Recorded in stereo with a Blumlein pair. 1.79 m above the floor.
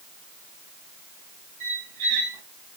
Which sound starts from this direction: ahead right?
A squeak, at 1.6 s.